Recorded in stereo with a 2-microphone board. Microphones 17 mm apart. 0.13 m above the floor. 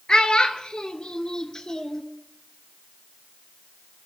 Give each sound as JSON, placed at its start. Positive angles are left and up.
{"t": 0.1, "sound": "a child speaking", "side_deg": 55, "distance_m": 1.3}